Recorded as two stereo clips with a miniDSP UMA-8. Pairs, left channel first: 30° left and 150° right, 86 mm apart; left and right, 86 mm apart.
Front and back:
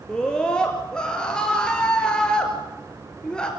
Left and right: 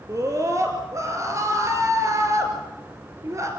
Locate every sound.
0.1 s a scream: 45° right, 2.5 m